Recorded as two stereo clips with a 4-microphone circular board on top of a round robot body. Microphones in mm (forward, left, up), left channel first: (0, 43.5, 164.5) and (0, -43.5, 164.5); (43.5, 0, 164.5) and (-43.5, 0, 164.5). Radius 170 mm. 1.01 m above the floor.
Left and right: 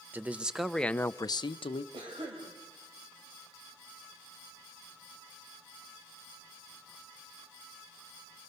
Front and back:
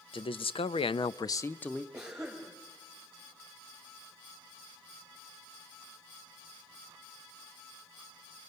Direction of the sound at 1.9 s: 100° right.